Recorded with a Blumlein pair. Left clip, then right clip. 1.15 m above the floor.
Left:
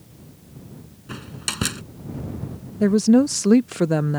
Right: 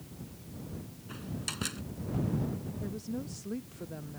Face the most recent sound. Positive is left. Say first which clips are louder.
# left 27 dB
turn(degrees=40)